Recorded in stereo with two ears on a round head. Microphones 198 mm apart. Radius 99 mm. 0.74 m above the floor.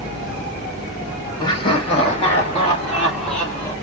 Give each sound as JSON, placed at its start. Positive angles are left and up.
{"t": 1.4, "sound": "laughter", "side_deg": 20, "distance_m": 1.1}